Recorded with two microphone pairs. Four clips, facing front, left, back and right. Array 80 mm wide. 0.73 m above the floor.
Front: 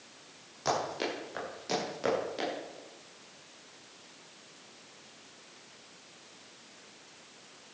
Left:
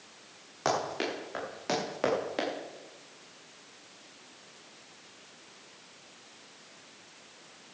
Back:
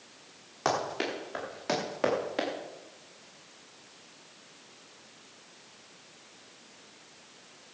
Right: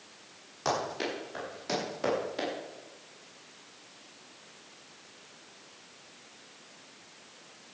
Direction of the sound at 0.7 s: 140° left.